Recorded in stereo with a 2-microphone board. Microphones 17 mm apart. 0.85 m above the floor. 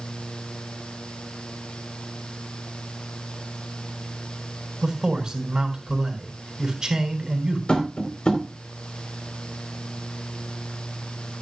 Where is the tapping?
70° left (ahead or behind), 3 m.